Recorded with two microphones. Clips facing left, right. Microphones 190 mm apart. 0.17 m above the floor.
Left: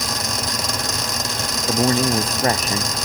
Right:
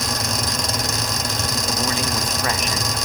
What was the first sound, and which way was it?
A man speaking, 35° left (ahead or behind).